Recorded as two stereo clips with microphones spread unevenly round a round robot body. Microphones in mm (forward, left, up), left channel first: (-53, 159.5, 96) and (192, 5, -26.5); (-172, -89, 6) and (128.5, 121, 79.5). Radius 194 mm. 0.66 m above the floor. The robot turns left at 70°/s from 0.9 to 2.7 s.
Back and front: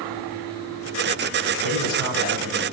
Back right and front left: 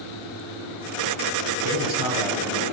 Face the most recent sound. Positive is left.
turn(degrees=-95)